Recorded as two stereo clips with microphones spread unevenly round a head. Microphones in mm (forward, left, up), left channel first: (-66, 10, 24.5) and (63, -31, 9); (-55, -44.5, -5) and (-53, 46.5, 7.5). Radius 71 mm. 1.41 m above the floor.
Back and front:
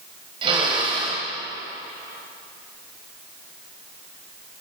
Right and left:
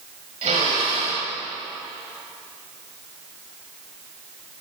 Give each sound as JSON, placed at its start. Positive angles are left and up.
{"t": 0.4, "sound": "a drill", "azimuth_deg": 40, "distance_m": 7.0}